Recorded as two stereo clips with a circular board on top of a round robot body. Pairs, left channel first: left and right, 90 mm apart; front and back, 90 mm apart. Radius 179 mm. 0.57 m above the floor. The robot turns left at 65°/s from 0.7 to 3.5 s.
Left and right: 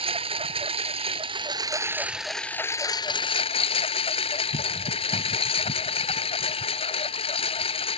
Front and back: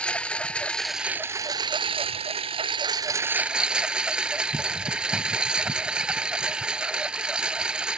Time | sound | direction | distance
0.0 | a lawn mower | 80° right | ?